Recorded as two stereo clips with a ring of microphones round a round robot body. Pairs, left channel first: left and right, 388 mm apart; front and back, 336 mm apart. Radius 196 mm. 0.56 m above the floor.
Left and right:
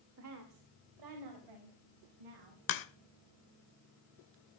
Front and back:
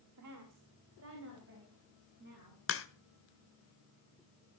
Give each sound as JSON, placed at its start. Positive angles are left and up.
{"t": 0.2, "sound": "a woman speaking", "azimuth_deg": -140, "distance_m": 1.7}
{"t": 2.7, "sound": "a crack", "azimuth_deg": 50, "distance_m": 1.6}